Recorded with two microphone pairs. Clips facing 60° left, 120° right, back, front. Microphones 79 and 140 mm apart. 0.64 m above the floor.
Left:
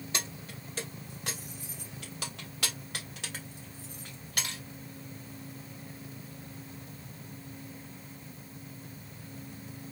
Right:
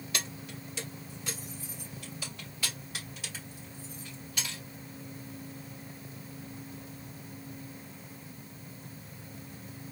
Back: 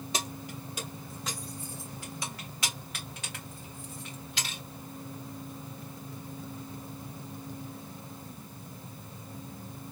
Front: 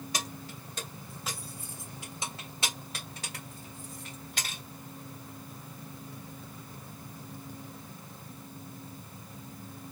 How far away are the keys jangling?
About 1.1 m.